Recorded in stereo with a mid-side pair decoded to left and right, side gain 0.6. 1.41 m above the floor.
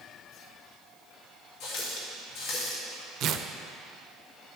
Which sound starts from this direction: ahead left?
A running tap, at 1.6 s.